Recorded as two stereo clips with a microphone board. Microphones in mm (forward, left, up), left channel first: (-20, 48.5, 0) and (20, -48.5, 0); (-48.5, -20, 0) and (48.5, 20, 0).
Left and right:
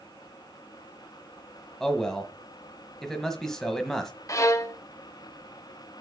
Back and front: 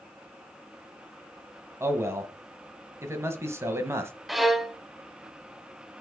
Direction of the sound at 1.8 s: 35° left.